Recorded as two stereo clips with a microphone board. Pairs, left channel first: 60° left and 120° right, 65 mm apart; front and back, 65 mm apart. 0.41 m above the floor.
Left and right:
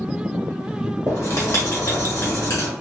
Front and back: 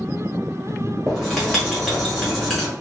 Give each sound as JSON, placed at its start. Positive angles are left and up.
{"t": 1.1, "sound": "writing", "azimuth_deg": 85, "distance_m": 1.2}